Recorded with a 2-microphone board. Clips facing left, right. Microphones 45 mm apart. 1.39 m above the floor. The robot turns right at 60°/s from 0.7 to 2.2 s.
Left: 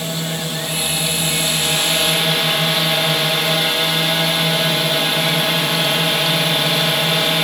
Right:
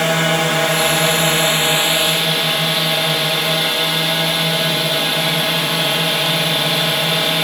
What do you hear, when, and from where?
0.0 s a drone: 90° right; by 7.4 s straight ahead